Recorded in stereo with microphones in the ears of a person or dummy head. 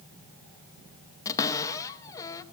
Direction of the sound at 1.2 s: 15° left (ahead or behind).